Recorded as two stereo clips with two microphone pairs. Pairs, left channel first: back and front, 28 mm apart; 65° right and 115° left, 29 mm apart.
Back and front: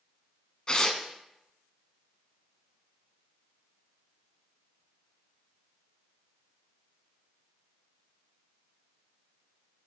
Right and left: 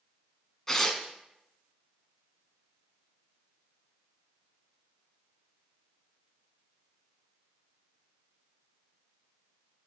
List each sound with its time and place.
0.7 s tearing paper: 135° right, 1.0 m